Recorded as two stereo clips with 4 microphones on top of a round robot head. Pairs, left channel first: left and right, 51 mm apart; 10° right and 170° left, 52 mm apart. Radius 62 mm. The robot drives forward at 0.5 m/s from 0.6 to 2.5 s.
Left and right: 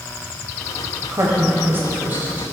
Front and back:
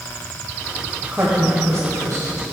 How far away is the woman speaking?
About 0.8 m.